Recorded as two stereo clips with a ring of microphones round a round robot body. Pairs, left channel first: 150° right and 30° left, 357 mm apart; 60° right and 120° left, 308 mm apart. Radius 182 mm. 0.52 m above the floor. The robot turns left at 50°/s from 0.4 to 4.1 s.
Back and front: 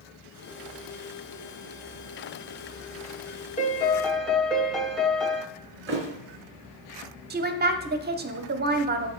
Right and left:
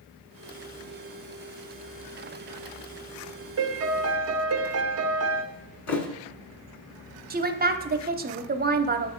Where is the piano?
150° left, 0.8 m; by 5.4 s 120° left, 0.8 m.